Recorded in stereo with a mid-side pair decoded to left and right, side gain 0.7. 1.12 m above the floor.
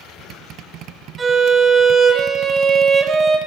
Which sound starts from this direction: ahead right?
A violin, at 1.2 s.